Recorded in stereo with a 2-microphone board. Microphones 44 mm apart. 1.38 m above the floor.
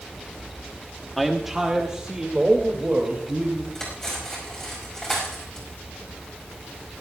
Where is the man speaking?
Centre (ahead or behind), 0.8 m; by 3.6 s 30° right (ahead or behind), 3 m.